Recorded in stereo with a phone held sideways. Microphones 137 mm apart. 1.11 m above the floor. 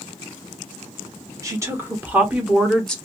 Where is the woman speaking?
25° right (ahead or behind), 1.3 m; by 3.0 s 5° left (ahead or behind), 0.8 m.